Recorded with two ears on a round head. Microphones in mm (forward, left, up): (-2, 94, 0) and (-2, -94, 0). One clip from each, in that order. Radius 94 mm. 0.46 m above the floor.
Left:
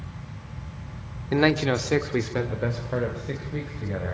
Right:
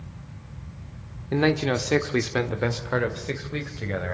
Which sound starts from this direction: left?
A man speaking, at 1.3 s.